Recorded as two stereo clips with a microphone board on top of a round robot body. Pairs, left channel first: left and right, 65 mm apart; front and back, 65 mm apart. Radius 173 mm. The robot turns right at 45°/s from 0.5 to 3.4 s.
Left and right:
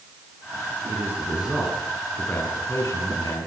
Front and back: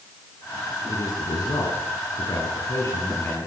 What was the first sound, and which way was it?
A man speaking, 40° right.